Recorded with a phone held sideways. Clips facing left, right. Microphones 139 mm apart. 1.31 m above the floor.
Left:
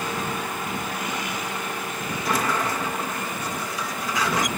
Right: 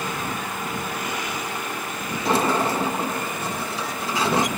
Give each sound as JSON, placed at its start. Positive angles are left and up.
{"t": 2.2, "sound": "a sliding door", "side_deg": -30}